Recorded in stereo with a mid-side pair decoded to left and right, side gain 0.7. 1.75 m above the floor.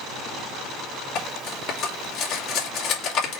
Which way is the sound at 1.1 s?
60° left.